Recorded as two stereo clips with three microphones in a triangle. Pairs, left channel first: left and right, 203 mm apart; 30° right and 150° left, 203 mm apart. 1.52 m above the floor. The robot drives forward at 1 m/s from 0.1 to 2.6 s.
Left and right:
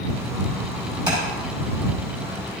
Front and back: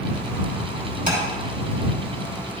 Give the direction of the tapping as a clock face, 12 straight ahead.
5 o'clock.